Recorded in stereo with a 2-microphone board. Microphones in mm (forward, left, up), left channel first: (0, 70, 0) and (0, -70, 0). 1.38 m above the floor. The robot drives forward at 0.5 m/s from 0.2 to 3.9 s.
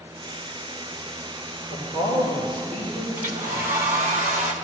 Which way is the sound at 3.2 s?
75° right (ahead or behind).